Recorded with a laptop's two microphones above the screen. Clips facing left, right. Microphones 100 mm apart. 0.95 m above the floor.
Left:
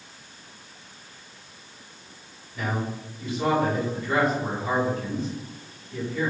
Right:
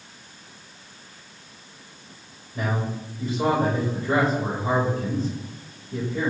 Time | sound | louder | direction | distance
2.5 | a man speaking | right 2 dB | 35° right (ahead or behind) | 4 m